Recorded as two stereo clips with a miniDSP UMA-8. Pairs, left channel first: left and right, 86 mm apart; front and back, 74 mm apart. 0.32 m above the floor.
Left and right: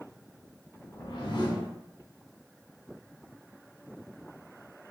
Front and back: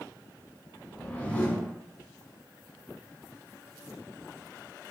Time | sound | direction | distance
0.8 | a whoosh | 70° left | 1.0 m